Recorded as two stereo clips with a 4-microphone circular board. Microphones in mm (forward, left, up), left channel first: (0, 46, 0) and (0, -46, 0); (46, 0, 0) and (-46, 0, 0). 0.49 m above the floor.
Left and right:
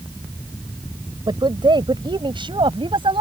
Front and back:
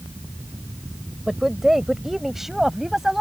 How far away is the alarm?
I don't hear an alarm.